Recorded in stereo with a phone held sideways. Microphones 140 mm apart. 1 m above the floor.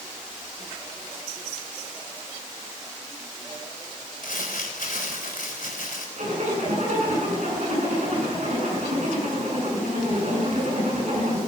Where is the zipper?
55° right (ahead or behind), 9 m.